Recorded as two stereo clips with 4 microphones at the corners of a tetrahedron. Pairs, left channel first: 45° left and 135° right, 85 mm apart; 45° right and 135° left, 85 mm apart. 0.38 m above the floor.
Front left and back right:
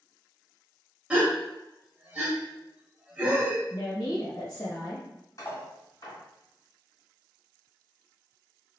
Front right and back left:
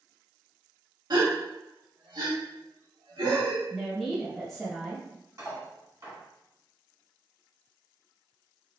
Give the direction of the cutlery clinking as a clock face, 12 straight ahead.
9 o'clock.